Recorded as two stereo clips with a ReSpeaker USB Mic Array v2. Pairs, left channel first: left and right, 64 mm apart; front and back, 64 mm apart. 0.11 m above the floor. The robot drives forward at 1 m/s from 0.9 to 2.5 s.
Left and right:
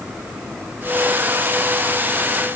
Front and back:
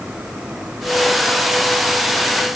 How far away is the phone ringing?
I don't hear a phone ringing.